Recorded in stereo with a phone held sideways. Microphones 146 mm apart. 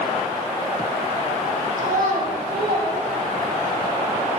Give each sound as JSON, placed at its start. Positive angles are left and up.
{"t": 1.8, "sound": "a child speaking", "side_deg": -60, "distance_m": 1.2}